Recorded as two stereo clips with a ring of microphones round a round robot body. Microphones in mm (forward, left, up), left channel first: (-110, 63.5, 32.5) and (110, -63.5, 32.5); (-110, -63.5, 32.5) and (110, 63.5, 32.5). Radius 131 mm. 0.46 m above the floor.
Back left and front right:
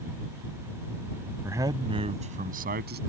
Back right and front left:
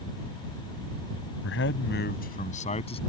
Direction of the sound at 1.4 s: 110° right.